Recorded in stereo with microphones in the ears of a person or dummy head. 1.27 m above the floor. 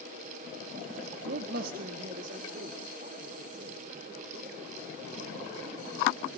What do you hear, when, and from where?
1.2 s a man speaking: 60° right (ahead or behind), 0.6 m; by 6.3 s 45° right (ahead or behind), 8.5 m